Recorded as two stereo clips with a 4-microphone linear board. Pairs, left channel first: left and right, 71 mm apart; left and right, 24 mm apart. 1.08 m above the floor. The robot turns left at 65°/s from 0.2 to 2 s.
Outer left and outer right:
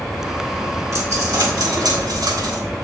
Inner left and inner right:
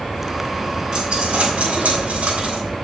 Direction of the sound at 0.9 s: 45° right.